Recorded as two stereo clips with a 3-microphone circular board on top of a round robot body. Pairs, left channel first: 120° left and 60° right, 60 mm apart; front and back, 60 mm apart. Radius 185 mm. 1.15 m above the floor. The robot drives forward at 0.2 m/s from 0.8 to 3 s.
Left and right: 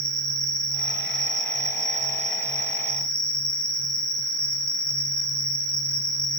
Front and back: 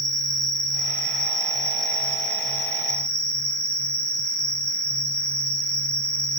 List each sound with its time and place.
0.0 s an insect: 160° right, 1.7 m; by 6.4 s 165° right, 2 m